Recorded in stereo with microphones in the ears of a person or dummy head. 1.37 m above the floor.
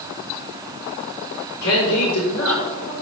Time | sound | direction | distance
1.6 | a man speaking | 80° left | 5 m